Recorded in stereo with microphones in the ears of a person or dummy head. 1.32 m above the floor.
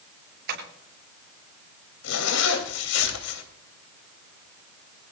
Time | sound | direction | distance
0.5 | tapping | 60° right (ahead or behind) | 8 m
2.0 | a zipper | 80° left | 2.5 m